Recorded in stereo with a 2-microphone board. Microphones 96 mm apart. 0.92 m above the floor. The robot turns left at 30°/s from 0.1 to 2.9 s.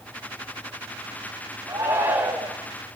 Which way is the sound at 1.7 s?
30° right (ahead or behind).